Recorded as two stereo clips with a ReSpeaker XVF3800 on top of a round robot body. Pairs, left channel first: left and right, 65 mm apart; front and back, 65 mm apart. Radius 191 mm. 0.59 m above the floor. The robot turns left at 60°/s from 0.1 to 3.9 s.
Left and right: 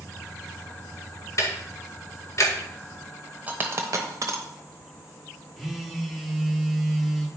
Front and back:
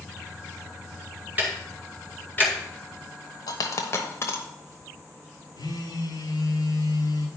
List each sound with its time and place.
1.4 s ticking: 120° left, 2 m; by 2.5 s 50° left, 2 m
3.5 s a dropped coin: 20° right, 0.9 m; by 4.4 s 50° right, 0.9 m
5.6 s a phone buzzing: 5° right, 1.9 m